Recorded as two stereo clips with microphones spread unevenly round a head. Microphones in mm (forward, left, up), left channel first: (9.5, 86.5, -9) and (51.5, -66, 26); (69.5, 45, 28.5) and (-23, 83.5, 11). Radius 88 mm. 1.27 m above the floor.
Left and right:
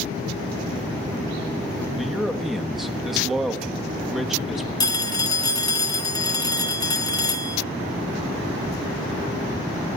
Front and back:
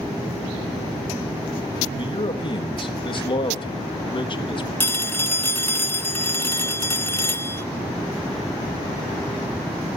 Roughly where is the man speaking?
Ahead.